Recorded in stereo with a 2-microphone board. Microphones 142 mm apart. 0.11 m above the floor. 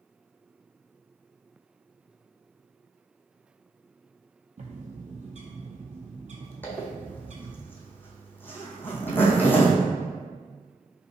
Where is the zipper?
15° left (ahead or behind), 0.8 m.